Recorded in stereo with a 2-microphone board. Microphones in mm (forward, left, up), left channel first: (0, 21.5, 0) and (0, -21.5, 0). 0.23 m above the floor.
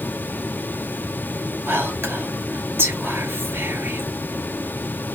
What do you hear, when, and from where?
1.7 s whispering: 70° right (ahead or behind), 3 m